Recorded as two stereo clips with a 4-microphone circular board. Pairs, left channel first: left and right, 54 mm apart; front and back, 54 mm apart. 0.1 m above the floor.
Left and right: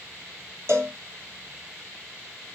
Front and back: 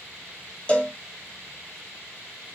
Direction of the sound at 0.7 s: 60° right.